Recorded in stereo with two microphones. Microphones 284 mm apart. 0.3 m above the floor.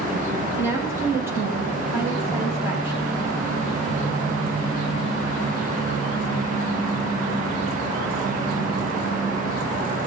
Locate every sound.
0.6 s a woman speaking: 10° right (ahead or behind), 8.5 m